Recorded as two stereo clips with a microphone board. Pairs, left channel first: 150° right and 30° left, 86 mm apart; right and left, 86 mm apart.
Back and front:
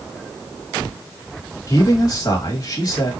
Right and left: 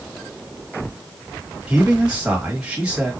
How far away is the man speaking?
About 2.5 m.